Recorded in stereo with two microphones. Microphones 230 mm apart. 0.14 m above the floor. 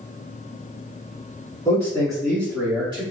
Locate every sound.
1.6 s a man speaking: 15° left (ahead or behind), 1.5 m; by 3.0 s 25° right (ahead or behind), 1.8 m